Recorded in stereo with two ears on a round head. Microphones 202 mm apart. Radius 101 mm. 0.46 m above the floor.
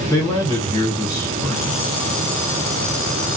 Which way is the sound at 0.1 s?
15° left (ahead or behind).